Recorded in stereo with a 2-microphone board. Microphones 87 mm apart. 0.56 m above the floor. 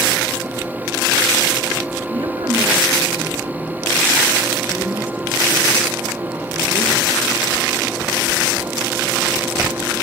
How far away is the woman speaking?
About 7 m.